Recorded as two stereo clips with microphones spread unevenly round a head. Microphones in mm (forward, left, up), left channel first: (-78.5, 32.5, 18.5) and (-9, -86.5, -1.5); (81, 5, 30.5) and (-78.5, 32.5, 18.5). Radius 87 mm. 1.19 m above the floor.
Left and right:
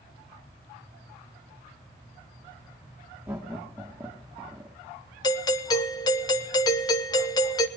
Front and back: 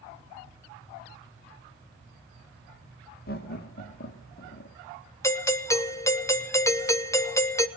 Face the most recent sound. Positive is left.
turn(degrees=60)